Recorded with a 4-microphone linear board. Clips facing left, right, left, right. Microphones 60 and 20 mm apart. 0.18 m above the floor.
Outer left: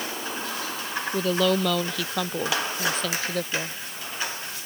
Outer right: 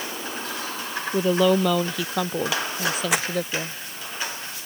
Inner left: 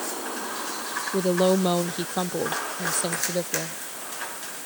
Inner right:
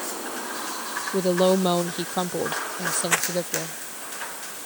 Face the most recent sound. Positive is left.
turn(degrees=-85)